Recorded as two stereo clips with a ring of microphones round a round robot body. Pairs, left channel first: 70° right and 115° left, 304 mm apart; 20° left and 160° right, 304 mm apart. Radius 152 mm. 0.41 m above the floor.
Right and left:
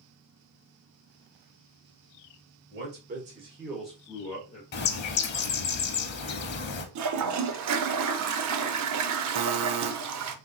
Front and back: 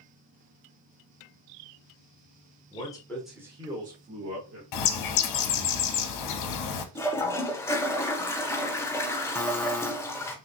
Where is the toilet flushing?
105° left, 0.6 m.